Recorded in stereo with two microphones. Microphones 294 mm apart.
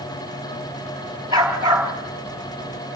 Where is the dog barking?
15° right (ahead or behind), 4 m.